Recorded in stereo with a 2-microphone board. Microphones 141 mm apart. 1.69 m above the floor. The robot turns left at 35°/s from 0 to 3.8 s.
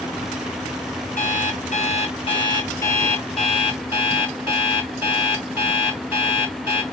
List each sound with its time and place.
1.2 s an alarm clock: 80° left, 7 m; by 6.8 s 15° right, 7 m